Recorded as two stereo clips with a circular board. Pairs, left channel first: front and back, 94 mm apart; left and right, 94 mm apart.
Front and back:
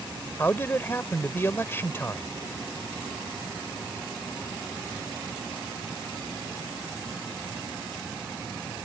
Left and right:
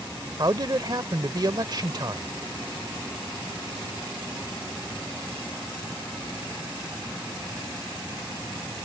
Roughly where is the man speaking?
Ahead right.